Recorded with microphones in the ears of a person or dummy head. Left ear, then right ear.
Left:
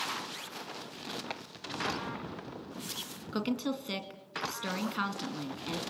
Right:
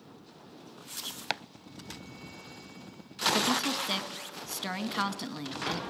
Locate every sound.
1.3 s chopping: 40° right (ahead or behind), 0.5 m
3.3 s a woman speaking: 10° right (ahead or behind), 2 m